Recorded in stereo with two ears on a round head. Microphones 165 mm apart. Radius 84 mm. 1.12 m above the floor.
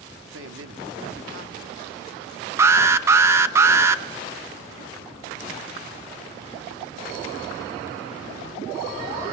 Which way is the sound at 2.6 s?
15° right (ahead or behind).